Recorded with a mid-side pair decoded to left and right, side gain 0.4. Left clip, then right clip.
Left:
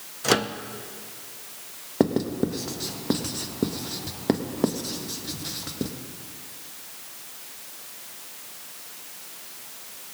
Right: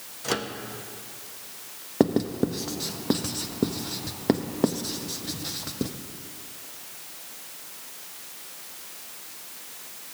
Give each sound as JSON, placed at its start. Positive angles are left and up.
{"t": 0.2, "sound": "a microwave", "azimuth_deg": 50, "distance_m": 0.7}
{"t": 2.0, "sound": "writing", "azimuth_deg": -5, "distance_m": 1.0}